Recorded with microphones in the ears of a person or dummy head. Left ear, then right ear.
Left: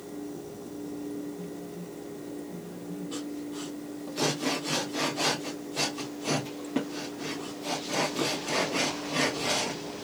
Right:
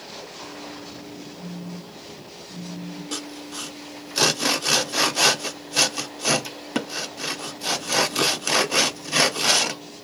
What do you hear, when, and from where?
1.4 s a phone buzzing: 55° left (ahead or behind), 1.9 m
3.1 s sawing: 65° right (ahead or behind), 0.5 m